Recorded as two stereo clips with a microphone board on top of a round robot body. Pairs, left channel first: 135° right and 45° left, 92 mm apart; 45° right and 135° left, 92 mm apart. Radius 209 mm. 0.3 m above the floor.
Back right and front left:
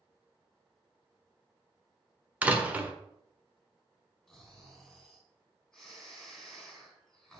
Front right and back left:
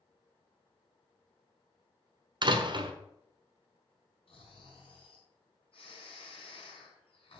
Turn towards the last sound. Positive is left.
turn(degrees=-50)